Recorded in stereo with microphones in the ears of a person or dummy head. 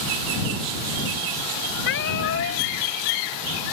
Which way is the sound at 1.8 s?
60° left (ahead or behind).